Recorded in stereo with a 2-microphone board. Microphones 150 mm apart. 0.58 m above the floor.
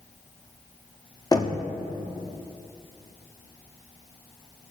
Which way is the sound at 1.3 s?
25° left (ahead or behind).